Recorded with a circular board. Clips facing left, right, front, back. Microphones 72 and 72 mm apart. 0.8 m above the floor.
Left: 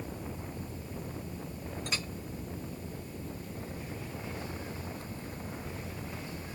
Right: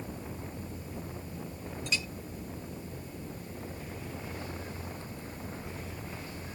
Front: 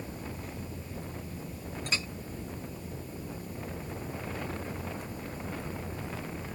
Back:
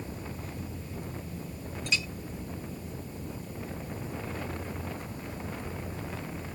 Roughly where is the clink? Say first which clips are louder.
Right 3 dB, back 3 dB; ahead left.